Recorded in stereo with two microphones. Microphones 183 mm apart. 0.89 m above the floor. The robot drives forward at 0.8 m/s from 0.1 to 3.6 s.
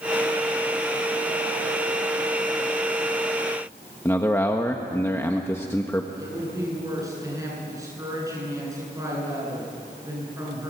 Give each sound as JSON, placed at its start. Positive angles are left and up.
{"t": 4.0, "sound": "a man speaking", "side_deg": 15, "distance_m": 1.3}
{"t": 6.2, "sound": "a woman speaking", "side_deg": -20, "distance_m": 9.5}